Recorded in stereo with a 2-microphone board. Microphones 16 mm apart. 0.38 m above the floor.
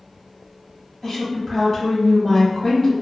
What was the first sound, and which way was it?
A woman speaking, 30° left (ahead or behind).